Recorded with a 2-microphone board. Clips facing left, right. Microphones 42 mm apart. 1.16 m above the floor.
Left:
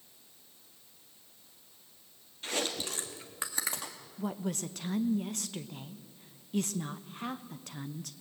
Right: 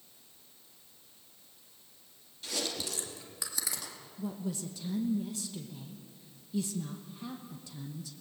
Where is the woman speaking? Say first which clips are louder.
Left 2 dB; 60° left (ahead or behind), 0.9 m.